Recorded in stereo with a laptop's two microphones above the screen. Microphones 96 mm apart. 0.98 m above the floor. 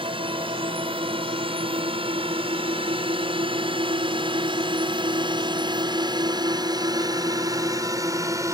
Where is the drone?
70° right (ahead or behind); by 8.6 s 35° right (ahead or behind).